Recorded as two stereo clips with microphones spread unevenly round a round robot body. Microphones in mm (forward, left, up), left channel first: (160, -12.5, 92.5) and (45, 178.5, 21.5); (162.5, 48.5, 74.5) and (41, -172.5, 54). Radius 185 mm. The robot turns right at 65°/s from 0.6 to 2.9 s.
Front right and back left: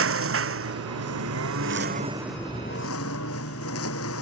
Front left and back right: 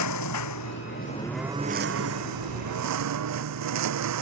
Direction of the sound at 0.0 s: 100° left.